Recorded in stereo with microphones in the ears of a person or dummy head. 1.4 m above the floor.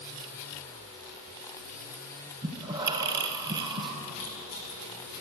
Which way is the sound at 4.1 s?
75° left (ahead or behind).